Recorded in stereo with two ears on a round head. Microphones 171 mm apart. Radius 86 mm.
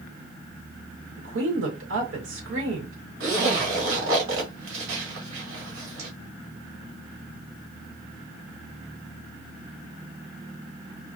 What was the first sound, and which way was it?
A woman speaking, 75° right (ahead or behind).